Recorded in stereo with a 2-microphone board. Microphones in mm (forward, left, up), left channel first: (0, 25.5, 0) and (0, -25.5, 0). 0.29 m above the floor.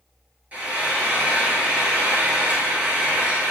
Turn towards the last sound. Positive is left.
turn(degrees=-30)  # may be behind; listen again after turning